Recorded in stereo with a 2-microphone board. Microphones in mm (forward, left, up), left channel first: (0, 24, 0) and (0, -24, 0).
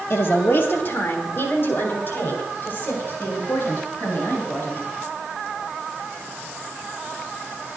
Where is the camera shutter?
No camera shutter in this recording.